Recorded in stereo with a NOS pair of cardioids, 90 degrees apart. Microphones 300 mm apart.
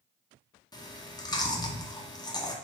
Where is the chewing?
15° left, 0.7 m.